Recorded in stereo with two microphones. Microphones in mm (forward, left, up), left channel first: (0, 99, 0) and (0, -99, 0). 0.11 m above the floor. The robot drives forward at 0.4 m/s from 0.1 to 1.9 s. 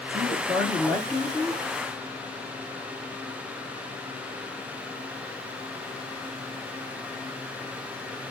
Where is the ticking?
I don't hear ticking.